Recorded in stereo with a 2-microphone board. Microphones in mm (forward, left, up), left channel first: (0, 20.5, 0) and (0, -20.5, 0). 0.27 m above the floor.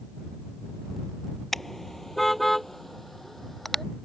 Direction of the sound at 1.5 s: 5° left (ahead or behind).